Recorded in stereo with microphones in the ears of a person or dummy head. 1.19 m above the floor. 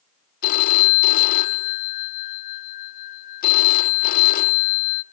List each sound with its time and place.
0.4 s a phone ringing: 50° left (ahead or behind), 0.9 m